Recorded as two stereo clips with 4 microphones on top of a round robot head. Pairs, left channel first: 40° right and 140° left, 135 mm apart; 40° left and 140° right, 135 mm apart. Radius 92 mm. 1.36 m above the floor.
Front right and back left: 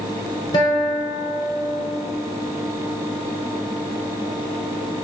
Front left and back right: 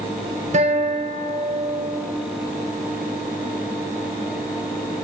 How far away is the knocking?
No knocking in this recording.